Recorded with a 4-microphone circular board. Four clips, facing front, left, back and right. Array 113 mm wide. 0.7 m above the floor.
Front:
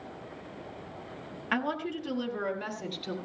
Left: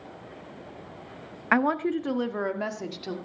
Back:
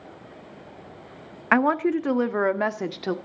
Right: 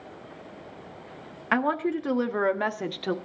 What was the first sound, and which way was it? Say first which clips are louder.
A woman speaking: left 1 dB, back 11 dB; 170° left.